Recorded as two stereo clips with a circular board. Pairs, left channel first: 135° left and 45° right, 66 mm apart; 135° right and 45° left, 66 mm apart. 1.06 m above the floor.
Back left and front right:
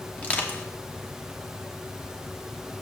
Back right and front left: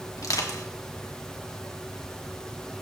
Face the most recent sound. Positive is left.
turn(degrees=-160)